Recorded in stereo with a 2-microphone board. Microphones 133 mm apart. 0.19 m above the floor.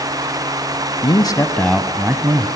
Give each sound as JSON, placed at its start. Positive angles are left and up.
{"t": 1.0, "sound": "a man speaking", "side_deg": 35, "distance_m": 1.6}